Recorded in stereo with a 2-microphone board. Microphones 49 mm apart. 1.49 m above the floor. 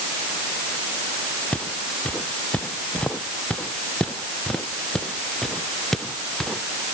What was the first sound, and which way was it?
Footsteps, 30° left (ahead or behind).